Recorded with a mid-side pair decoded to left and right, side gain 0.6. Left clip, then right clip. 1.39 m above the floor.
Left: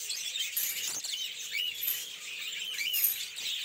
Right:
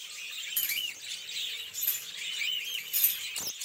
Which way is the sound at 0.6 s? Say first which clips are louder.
Right 2 dB; 25° right.